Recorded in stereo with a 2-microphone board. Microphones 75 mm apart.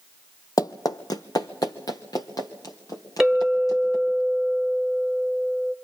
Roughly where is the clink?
Centre.